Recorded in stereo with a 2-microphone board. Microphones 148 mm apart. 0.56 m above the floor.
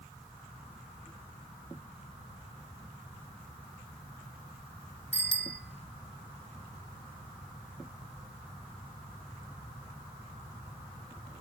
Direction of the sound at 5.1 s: 10° left (ahead or behind).